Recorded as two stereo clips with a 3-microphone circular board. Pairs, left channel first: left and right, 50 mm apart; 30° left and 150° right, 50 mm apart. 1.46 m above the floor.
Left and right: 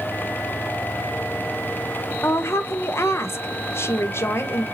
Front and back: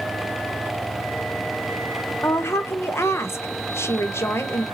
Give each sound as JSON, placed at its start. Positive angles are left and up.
{"t": 2.2, "sound": "a woman speaking", "azimuth_deg": 60, "distance_m": 0.9}